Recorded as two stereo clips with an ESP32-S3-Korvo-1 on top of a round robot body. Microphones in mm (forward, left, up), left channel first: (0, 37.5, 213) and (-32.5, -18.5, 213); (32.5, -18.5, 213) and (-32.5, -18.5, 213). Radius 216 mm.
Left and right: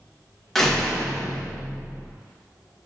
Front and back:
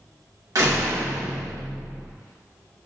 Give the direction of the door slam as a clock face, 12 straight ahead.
7 o'clock.